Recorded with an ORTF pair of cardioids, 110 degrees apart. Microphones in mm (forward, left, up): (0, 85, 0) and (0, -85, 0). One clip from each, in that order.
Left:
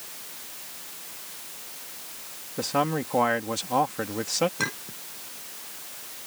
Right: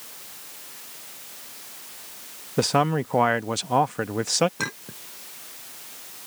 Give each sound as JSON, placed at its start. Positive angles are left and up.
{"t": 2.6, "sound": "a man speaking", "azimuth_deg": -60}
{"t": 4.6, "sound": "a clink", "azimuth_deg": -40}